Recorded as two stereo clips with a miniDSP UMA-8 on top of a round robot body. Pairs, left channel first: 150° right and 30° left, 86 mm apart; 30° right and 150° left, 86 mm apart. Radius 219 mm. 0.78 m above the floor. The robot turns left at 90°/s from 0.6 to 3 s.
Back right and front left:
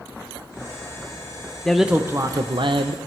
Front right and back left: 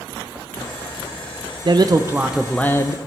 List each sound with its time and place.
1.6 s a man speaking: 130° left, 0.7 m; by 3.0 s 10° left, 0.7 m